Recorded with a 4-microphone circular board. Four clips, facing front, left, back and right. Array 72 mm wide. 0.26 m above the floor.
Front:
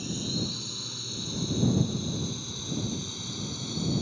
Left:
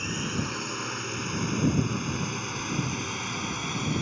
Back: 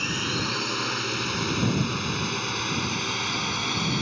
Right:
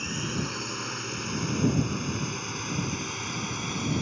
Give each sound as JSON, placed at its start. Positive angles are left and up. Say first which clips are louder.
{"t": 0.0, "sound": "a drone", "louder": "left 1 dB, back 6 dB", "azimuth_deg": 175}